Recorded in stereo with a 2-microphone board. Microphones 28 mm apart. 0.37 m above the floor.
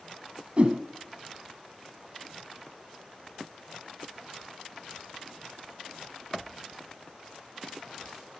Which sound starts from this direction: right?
A whoosh, at 0.6 s.